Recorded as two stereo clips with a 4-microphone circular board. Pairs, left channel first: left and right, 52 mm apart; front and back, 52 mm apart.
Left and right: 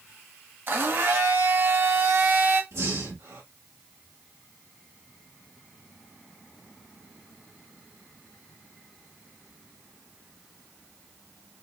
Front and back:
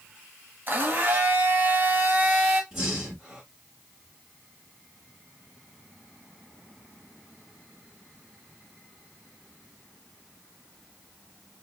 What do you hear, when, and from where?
0.7 s a blender: 130° right, 1.1 m
2.7 s breathing: 100° right, 2 m